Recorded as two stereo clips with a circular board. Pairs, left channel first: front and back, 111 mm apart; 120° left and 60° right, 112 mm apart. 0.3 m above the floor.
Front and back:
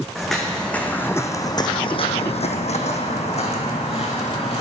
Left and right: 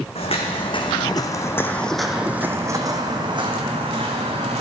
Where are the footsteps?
90° left, 1.1 m; by 4.6 s 30° right, 1.6 m.